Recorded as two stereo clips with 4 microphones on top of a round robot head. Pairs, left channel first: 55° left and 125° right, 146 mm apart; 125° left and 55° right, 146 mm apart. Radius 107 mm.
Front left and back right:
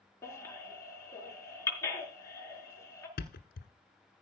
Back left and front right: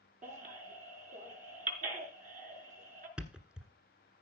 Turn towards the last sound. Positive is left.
turn(degrees=30)